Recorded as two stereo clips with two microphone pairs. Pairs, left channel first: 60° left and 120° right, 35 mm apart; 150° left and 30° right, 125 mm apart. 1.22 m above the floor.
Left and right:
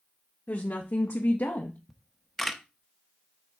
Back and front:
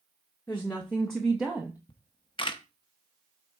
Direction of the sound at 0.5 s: 85° left.